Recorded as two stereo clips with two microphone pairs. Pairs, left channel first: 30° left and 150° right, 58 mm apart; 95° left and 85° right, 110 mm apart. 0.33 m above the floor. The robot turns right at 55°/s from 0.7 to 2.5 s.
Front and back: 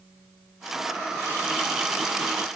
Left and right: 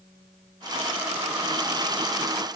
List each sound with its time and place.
Only background noise.